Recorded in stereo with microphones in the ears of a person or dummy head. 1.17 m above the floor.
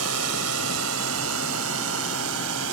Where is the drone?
80° right; by 2.7 s 75° right (ahead or behind).